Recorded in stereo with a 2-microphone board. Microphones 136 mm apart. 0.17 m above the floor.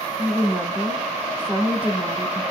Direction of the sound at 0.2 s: 10° right (ahead or behind).